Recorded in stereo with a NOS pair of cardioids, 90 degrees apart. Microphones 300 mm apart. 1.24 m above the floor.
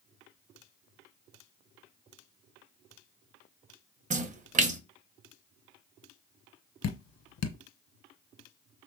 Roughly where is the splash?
Ahead right.